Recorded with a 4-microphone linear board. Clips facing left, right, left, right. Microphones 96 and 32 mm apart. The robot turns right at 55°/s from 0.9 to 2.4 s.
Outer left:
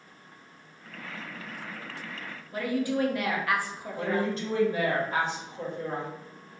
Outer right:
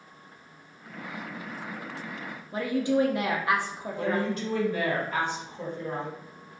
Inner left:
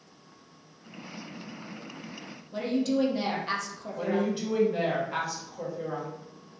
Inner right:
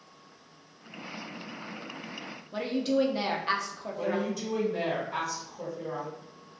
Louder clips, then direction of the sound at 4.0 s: Even, inner left 2 dB; 30° left (ahead or behind).